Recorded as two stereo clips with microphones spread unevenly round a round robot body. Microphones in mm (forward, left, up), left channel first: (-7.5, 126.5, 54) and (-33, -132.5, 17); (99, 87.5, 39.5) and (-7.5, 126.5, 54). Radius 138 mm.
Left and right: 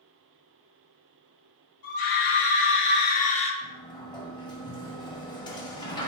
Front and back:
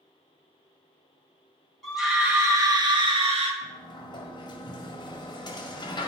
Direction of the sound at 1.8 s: 65° left.